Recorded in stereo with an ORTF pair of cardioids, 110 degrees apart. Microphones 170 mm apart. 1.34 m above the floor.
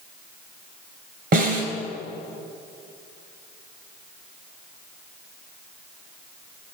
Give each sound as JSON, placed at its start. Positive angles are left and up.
{"t": 1.3, "sound": "a snare drum", "azimuth_deg": -70, "distance_m": 3.0}